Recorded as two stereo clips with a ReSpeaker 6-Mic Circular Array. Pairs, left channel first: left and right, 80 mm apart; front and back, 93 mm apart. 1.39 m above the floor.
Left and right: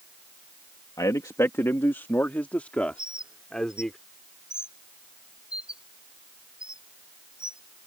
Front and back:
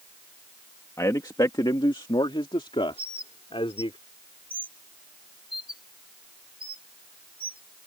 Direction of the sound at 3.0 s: 170° right.